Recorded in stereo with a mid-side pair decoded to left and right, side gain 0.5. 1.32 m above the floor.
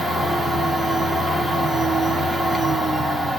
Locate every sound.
0.0 s a machine running: 20° right, 0.8 m